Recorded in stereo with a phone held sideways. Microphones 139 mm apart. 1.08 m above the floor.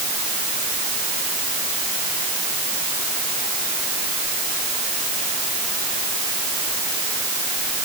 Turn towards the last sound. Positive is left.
No sound to turn to.